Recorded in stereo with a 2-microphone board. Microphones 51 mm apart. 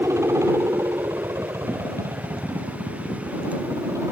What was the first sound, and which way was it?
A helicopter, 75° right (ahead or behind).